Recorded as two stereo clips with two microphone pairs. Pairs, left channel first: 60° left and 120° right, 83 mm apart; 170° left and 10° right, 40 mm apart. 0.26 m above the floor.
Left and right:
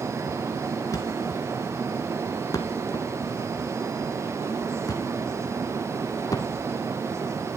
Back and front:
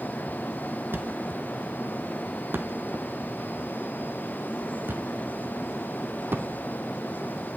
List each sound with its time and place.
0.9 s a thud: 10° left, 1.1 m